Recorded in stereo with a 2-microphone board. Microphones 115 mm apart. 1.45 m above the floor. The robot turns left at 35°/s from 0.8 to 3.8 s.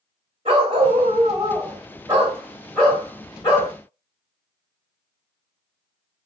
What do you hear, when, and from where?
0.5 s a dog barking: 115° right, 1.7 m; by 3.7 s 140° left, 1.7 m